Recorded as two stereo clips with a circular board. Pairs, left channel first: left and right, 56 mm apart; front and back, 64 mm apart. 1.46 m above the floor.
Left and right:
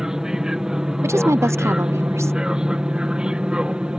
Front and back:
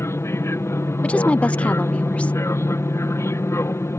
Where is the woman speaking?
65° right.